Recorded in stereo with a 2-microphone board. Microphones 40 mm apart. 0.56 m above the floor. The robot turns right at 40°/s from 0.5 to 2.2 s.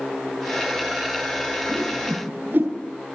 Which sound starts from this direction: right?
A whoosh, at 1.7 s.